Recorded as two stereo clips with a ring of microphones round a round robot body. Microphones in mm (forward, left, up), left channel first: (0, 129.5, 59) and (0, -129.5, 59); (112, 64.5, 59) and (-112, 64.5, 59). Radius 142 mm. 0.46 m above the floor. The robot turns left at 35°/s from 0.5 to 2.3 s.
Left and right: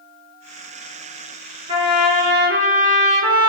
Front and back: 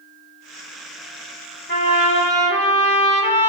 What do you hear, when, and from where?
1.7 s a trumpet: 30° right, 1.6 m; by 3.5 s 50° right, 1.6 m